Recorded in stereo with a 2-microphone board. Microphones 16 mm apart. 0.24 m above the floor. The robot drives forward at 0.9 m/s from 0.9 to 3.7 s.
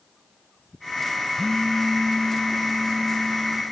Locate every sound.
1.4 s a phone buzzing: 35° left (ahead or behind), 0.6 m; by 3.6 s 10° left (ahead or behind), 2.0 m